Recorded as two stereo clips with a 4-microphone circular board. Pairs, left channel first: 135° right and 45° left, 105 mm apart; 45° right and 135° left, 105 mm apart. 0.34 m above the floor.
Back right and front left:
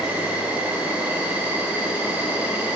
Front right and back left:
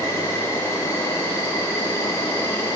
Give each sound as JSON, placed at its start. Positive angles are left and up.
{"t": 0.0, "sound": "an insect", "azimuth_deg": -20, "distance_m": 1.7}